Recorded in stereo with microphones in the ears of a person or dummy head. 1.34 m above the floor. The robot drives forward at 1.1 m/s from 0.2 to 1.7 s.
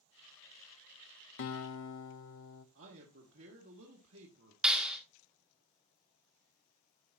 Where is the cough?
No cough in this recording.